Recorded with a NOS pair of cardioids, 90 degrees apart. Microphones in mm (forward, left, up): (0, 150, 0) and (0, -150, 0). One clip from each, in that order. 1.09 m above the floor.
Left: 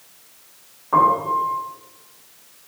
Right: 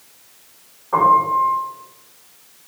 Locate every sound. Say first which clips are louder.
0.9 s a piano: right 3 dB; 20° left, 1.1 m